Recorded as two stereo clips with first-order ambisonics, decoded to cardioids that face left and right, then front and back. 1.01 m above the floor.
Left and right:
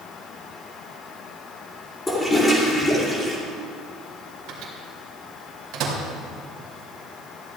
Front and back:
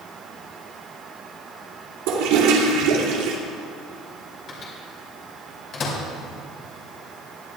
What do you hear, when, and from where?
2.1 s a toilet flushing: 170° left, 2.5 m
4.5 s a microwave: 55° right, 3 m